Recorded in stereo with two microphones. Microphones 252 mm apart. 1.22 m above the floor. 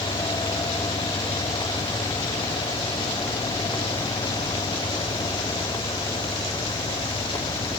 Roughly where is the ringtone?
No ringtone in this recording.